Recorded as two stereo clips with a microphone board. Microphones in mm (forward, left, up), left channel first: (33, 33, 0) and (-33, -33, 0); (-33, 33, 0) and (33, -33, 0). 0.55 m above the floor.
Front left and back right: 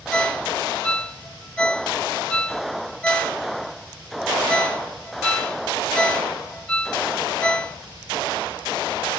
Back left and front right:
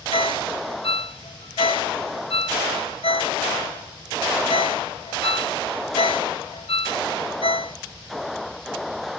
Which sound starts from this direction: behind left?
A ringtone, at 0.1 s.